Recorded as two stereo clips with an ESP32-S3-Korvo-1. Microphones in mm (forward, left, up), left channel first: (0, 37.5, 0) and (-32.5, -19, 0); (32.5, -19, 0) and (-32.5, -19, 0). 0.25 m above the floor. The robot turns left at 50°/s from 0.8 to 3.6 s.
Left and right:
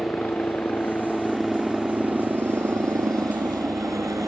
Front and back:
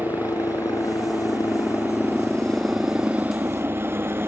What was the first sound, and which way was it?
A helicopter, 5° left.